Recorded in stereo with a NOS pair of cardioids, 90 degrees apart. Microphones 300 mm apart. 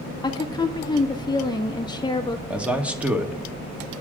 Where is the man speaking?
5° right, 1.6 m.